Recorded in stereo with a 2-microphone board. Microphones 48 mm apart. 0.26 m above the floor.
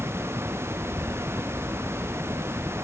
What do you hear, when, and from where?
0.0 s a helicopter: 60° right (ahead or behind)